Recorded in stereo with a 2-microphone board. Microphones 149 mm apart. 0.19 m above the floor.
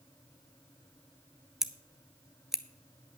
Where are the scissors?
5° right (ahead or behind), 0.7 m.